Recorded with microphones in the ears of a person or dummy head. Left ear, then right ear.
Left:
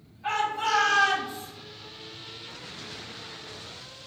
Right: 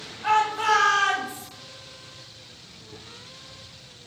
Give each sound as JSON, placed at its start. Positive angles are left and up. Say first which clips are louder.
{"t": 0.2, "sound": "a shout", "louder": "right 6 dB", "side_deg": -40, "distance_m": 1.3}